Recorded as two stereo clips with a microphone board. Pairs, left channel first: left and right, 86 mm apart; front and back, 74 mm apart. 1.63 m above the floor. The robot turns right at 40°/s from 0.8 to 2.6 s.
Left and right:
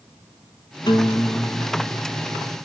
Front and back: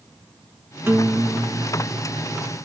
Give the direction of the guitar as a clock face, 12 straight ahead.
8 o'clock.